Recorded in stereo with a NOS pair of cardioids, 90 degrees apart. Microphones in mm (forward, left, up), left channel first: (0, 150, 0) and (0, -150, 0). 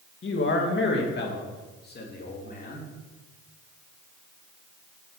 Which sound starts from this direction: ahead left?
A man speaking, at 0.2 s.